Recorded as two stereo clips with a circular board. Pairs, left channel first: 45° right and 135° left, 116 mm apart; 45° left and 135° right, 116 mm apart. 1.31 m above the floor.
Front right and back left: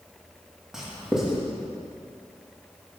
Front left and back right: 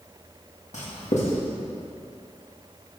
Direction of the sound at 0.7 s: 50° left.